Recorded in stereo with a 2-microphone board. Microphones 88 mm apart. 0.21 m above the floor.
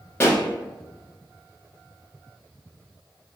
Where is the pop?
30° left (ahead or behind), 1.0 m.